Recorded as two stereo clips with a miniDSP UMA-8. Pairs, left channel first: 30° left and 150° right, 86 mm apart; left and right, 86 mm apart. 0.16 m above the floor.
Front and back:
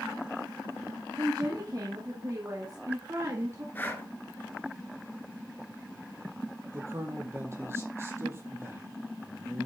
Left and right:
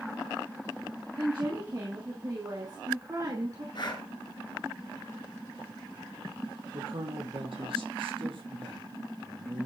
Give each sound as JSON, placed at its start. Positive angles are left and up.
{"t": 1.2, "sound": "a woman speaking", "azimuth_deg": -115, "distance_m": 3.0}
{"t": 3.8, "sound": "breathing", "azimuth_deg": 95, "distance_m": 1.8}
{"t": 6.7, "sound": "a man speaking", "azimuth_deg": -90, "distance_m": 3.5}